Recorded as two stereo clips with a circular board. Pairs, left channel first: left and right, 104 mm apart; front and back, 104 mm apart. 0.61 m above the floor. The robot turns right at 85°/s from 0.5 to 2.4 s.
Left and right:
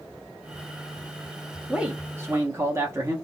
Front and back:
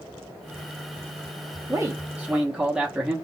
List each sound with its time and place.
1.7 s a man speaking: 170° right, 0.7 m; by 3.1 s 105° right, 0.7 m